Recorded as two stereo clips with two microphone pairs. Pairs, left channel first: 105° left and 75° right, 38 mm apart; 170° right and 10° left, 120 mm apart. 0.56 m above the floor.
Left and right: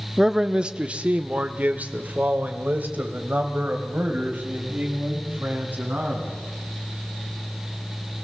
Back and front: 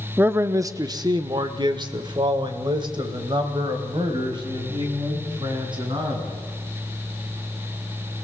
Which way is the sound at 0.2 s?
20° right.